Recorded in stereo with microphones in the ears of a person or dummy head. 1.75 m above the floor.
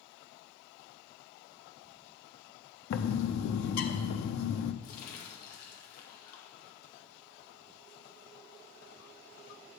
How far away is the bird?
About 0.8 m.